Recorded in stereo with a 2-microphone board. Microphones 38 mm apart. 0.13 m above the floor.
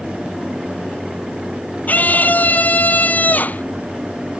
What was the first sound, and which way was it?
A scream, 50° left (ahead or behind).